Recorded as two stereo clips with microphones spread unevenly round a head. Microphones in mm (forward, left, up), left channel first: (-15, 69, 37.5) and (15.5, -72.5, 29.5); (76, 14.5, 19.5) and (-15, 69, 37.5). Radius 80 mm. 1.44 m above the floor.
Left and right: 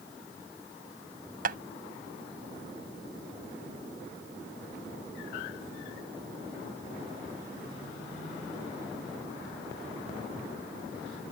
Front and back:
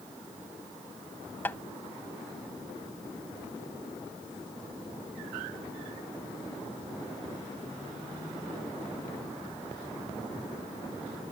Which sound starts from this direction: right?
Tapping, at 1.4 s.